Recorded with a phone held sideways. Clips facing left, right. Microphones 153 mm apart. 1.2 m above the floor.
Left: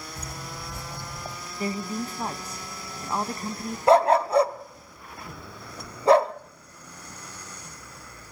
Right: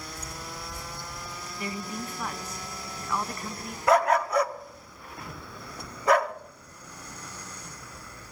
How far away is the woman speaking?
About 1.9 m.